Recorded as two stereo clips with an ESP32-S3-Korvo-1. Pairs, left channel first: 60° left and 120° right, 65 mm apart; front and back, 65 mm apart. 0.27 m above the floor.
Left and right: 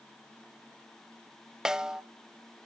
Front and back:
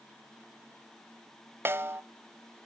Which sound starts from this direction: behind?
A snare drum, at 1.6 s.